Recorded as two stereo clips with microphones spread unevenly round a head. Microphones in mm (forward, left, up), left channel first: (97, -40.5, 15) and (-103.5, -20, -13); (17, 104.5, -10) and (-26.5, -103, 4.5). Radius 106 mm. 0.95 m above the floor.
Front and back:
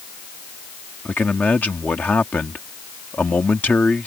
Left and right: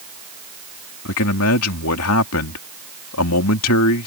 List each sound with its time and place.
1.1 s a man speaking: 80° left